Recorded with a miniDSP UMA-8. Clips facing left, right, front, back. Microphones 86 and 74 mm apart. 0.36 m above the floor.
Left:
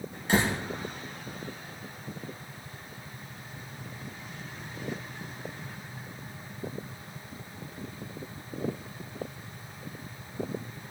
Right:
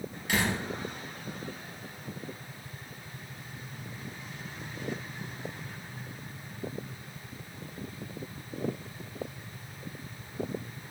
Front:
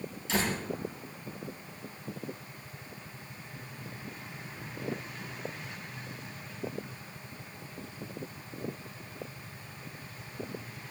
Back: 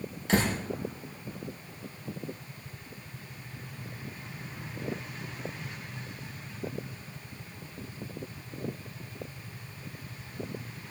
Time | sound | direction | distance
0.3 | a door slam | 145° left | 4.5 m